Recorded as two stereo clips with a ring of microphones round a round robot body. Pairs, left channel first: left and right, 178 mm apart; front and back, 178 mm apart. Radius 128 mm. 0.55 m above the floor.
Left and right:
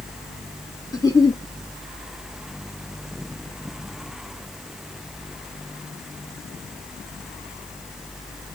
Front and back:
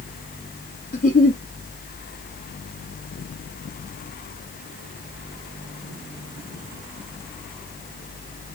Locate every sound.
0.9 s a giggle: 25° left, 1.6 m